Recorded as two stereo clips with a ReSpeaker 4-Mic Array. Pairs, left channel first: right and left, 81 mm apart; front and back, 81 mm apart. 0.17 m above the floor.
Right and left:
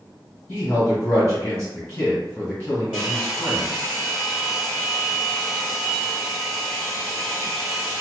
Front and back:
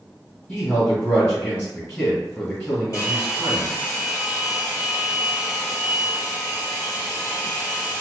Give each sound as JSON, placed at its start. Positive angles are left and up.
{"t": 0.5, "sound": "a man speaking", "azimuth_deg": -45, "distance_m": 1.6}
{"t": 2.9, "sound": "a hair dryer", "azimuth_deg": 20, "distance_m": 1.6}